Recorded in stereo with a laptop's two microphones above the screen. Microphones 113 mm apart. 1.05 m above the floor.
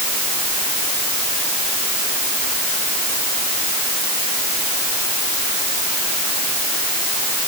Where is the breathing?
No breathing in this recording.